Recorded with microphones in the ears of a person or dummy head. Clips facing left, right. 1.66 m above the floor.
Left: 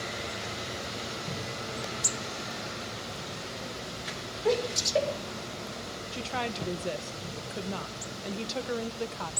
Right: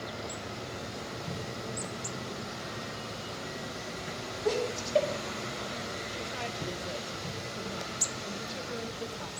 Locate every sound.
4.5 s laughter: 5° left (ahead or behind), 5 m
6.1 s a woman speaking: 75° left (ahead or behind), 1.4 m